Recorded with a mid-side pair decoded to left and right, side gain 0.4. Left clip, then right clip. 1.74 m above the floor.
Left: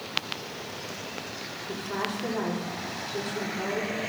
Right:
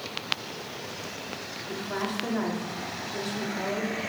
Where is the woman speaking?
20° right, 4 m.